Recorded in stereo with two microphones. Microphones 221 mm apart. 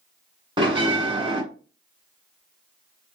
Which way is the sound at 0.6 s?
25° right (ahead or behind).